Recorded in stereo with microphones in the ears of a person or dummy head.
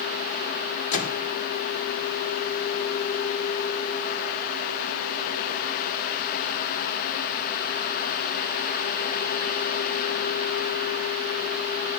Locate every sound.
0.9 s a microwave: 45° left (ahead or behind), 2 m